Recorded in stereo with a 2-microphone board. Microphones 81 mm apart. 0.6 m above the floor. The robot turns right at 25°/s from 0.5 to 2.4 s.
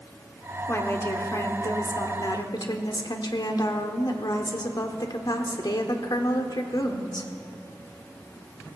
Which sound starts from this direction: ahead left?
A woman speaking, at 0.7 s.